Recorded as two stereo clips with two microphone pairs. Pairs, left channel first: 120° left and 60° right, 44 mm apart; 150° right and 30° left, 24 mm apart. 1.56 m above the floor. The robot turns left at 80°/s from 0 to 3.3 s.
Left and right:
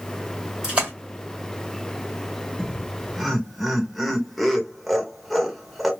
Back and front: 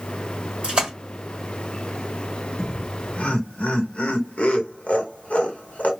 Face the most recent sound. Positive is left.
turn(degrees=-145)